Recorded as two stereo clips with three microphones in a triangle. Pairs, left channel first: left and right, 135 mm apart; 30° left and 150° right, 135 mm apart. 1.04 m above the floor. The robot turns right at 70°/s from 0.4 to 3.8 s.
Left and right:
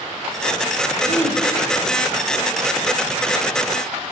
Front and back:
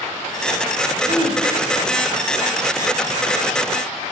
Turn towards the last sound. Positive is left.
turn(degrees=-15)